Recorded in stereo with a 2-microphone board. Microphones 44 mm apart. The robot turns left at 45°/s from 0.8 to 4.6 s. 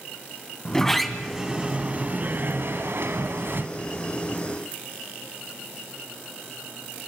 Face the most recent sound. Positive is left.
turn(degrees=-160)